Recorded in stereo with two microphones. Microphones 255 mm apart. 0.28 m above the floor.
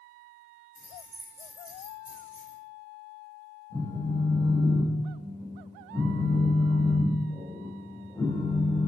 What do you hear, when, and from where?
0.8 s keys jangling: 45° left (ahead or behind), 1.6 m
3.7 s a phone buzzing: 10° left (ahead or behind), 0.6 m